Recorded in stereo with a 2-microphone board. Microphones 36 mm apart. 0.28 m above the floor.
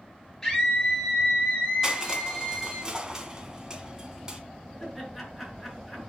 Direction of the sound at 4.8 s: Centre (ahead or behind).